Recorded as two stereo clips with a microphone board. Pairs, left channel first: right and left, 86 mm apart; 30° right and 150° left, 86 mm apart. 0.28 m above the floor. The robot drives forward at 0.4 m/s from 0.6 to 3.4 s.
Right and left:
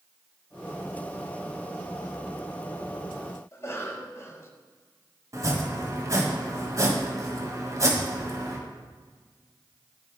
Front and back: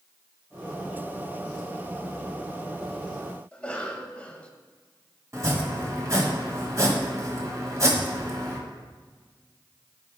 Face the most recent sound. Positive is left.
turn(degrees=120)